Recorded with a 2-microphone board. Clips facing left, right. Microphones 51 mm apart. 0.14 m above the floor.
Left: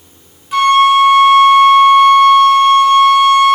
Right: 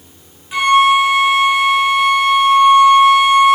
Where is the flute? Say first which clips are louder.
Left 3 dB; 15° right (ahead or behind), 1.3 m.